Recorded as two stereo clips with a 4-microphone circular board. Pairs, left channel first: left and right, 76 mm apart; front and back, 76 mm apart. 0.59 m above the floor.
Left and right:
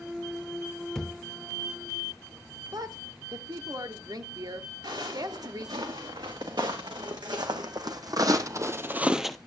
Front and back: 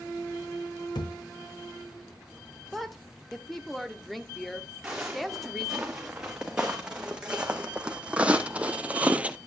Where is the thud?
5° left, 0.7 m.